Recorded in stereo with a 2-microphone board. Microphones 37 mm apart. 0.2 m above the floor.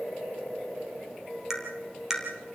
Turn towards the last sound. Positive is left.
turn(degrees=-10)  # may be behind; listen again after turning